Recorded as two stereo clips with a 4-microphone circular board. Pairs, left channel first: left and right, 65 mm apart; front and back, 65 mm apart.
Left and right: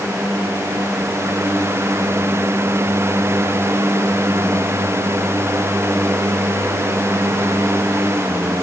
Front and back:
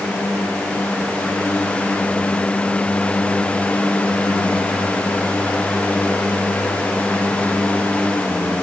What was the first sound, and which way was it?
Only background noise.